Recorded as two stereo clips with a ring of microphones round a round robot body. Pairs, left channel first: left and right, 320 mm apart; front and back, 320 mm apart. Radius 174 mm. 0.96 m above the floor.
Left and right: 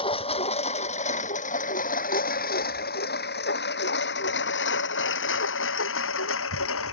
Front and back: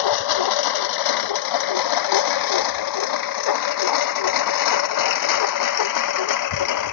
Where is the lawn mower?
15° left; by 6.9 s 35° left.